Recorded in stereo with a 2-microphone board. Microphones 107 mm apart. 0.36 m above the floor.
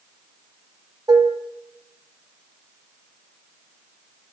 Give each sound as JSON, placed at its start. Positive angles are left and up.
{"t": 1.1, "sound": "dishes clattering", "side_deg": -40, "distance_m": 1.0}